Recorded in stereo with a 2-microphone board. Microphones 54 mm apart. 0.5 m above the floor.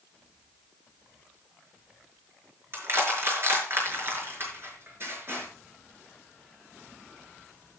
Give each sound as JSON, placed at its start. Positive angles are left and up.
{"t": 2.7, "sound": "crushing", "side_deg": -45, "distance_m": 5.5}